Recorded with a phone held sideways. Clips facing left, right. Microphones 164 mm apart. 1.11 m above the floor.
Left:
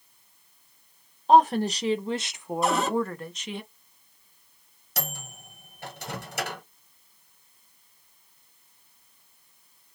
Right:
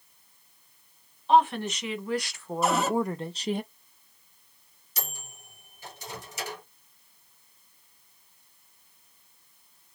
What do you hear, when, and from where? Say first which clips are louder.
1.3 s a woman speaking: left 3 dB; 40° left (ahead or behind), 1.0 m; by 3.6 s 45° right (ahead or behind), 0.6 m
2.6 s a cupboard door: even; 5° right (ahead or behind), 1.4 m
5.0 s a microwave: left 6 dB; 65° left (ahead or behind), 0.8 m